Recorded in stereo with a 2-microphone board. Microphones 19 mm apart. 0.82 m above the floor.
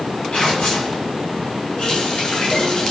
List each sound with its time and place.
0.3 s tearing paper: 75° left (ahead or behind), 7.5 m
1.8 s a running tap: 75° left (ahead or behind), 6 m